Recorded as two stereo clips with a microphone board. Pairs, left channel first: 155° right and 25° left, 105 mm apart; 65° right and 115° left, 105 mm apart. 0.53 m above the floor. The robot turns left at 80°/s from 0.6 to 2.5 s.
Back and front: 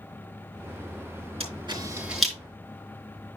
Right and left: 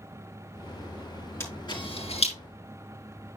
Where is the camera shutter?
Straight ahead, 3.5 m; by 2.3 s 75° right, 3.5 m.